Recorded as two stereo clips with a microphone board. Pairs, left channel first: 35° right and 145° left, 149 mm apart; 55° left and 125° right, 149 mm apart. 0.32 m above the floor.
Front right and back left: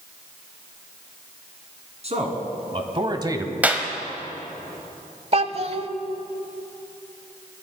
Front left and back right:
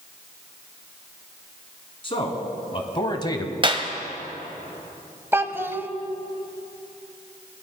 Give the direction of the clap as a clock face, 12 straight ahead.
5 o'clock.